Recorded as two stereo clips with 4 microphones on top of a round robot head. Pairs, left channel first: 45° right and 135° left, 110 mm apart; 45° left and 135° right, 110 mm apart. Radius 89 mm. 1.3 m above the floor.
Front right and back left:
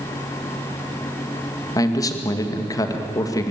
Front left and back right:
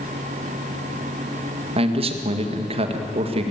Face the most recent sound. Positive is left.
turn(degrees=-100)